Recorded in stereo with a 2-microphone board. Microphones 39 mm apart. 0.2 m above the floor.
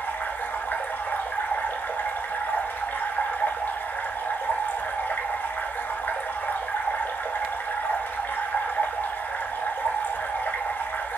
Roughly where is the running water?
Left.